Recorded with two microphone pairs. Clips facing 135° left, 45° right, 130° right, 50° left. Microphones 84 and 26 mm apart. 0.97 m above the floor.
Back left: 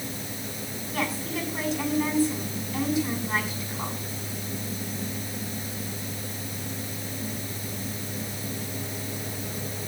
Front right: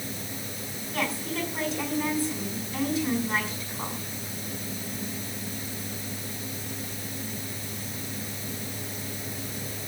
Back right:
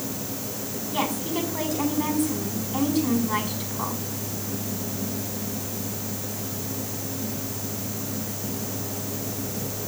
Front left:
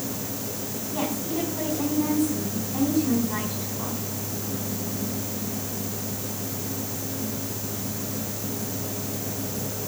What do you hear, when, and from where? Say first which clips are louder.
0.9 s a woman speaking: even, back right 2 dB; 135° right, 6.5 m